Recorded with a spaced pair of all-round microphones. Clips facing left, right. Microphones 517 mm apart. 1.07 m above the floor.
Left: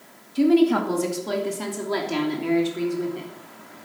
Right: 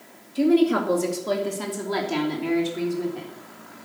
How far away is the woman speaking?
About 2 m.